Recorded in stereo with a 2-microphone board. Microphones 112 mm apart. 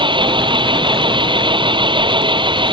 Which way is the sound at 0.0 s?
45° right (ahead or behind).